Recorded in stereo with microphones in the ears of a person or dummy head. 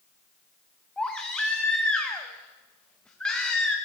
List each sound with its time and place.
1.0 s a baby crying: 5° left (ahead or behind), 0.6 m